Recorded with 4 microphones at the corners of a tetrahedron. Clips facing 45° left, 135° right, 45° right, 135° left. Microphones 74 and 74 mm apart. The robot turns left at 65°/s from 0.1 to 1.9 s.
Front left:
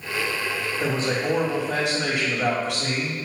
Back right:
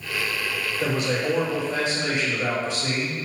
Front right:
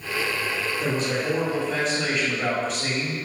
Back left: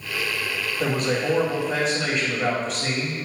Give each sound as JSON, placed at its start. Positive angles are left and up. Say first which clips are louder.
{"t": 0.8, "sound": "a man speaking", "louder": "back right 1 dB, back left 4 dB", "azimuth_deg": 120, "distance_m": 3.5}